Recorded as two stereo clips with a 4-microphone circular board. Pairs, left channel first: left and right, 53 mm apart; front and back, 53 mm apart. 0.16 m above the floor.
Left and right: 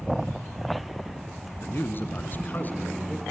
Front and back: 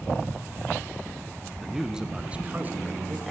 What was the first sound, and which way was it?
A man speaking, 90° left.